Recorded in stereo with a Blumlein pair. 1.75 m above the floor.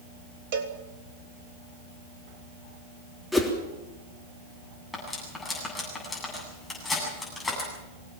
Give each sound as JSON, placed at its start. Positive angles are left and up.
{"t": 0.5, "sound": "a cowbell", "azimuth_deg": -50, "distance_m": 1.7}
{"t": 3.3, "sound": "a whoosh", "azimuth_deg": 0, "distance_m": 3.5}
{"t": 4.9, "sound": "cutlery clinking", "azimuth_deg": 10, "distance_m": 8.5}